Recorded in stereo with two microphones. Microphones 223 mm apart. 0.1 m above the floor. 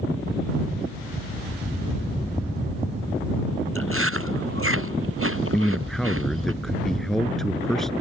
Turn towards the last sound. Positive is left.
turn(degrees=0)  # may be behind; listen again after turning